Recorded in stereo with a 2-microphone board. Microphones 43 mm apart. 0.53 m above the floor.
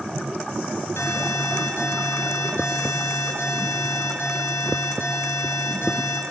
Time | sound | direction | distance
1.0 | an alarm | 80° left | 5 m